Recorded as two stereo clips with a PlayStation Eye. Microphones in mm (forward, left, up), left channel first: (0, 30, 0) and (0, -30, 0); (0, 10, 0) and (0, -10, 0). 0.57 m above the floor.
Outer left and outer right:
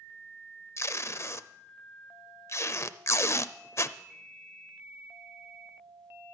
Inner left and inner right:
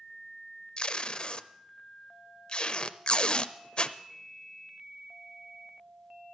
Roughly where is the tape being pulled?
Left.